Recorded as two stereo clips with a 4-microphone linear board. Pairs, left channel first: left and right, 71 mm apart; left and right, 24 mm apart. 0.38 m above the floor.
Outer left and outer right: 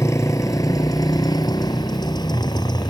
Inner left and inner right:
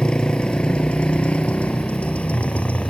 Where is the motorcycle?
45° left (ahead or behind); by 2.9 s 85° left.